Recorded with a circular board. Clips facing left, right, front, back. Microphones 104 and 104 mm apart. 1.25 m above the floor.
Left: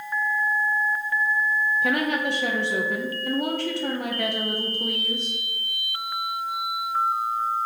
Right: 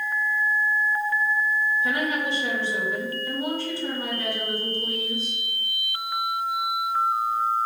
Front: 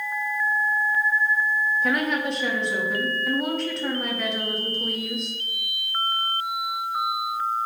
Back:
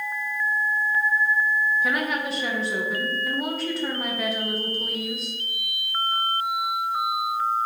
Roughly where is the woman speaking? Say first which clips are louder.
Left 2 dB, front 2 dB; left.